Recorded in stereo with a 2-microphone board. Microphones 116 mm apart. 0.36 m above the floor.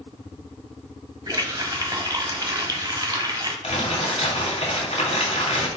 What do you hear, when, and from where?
1.3 s a running tap: 35° right (ahead or behind), 1.2 m
3.6 s crumpling: 60° left (ahead or behind), 2.5 m